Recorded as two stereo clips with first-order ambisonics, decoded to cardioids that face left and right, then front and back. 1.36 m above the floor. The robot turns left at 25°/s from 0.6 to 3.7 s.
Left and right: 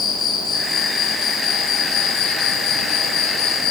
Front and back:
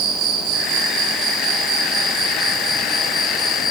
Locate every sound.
0.0 s an insect: 150° left, 6.5 m; by 3.7 s 75° left, 6.5 m